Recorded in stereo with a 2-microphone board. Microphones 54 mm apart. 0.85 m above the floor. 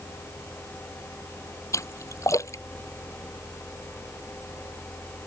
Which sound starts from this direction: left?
A splash, at 1.7 s.